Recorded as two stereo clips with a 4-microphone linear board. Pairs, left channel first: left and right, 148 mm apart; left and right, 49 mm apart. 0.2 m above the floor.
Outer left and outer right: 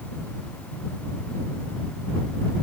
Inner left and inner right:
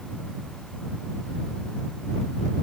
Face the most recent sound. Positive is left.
No sound to turn to.